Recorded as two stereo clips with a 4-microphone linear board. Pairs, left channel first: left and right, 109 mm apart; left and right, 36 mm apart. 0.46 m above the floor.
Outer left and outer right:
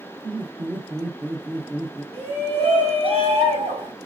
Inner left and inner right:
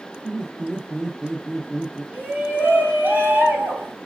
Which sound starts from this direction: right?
A shout, at 2.1 s.